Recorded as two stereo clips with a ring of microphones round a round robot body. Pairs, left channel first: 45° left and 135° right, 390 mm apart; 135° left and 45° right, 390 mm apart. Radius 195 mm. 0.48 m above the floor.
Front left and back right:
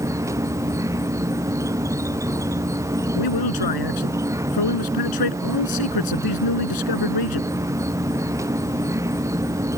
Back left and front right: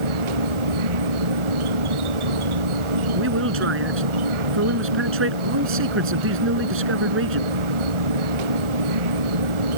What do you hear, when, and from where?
0.0 s an insect: 55° right
3.1 s a man speaking: 15° left